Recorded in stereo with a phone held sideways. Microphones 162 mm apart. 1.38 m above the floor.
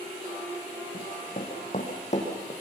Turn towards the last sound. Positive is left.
turn(degrees=45)  # may be behind; listen again after turning